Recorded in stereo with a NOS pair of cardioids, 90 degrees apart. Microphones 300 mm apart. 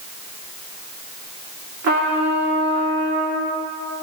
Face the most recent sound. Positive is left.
turn(degrees=-60)